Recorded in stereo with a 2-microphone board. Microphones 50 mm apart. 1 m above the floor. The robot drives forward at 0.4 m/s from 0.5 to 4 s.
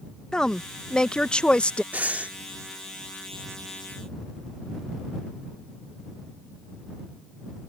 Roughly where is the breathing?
Right.